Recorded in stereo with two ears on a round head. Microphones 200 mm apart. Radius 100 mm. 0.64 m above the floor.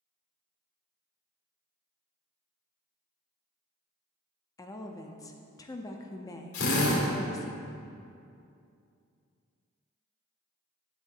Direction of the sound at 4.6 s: 15° left (ahead or behind).